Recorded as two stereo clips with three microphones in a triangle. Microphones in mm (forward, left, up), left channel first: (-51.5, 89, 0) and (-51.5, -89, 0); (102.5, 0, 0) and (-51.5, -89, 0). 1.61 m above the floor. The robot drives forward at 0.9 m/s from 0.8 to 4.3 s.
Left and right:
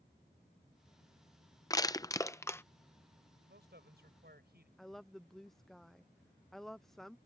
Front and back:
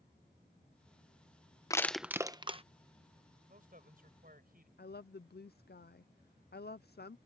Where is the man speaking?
110° right; by 4.7 s 115° right.